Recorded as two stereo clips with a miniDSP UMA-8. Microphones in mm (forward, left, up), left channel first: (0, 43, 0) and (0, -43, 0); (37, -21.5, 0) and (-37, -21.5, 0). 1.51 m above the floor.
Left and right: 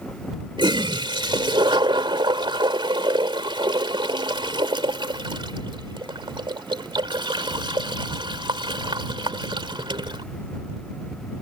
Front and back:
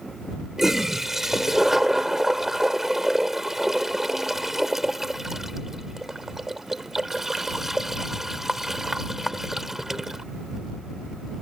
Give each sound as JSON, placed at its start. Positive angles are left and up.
{"t": 0.6, "sound": "a toilet flushing", "azimuth_deg": -95}